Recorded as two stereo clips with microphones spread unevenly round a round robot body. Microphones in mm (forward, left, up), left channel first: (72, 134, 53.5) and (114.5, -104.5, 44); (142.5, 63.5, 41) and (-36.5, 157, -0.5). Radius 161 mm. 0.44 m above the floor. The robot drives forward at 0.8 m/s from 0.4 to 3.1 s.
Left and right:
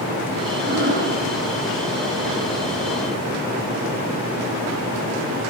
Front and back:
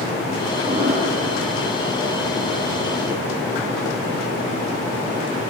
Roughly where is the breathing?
Behind right.